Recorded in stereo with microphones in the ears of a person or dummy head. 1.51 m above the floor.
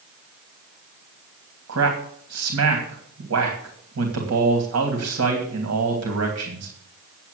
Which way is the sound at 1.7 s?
85° right.